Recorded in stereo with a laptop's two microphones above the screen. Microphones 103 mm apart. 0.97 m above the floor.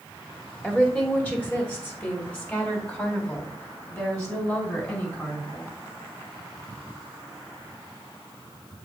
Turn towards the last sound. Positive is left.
turn(degrees=20)  # may be behind; listen again after turning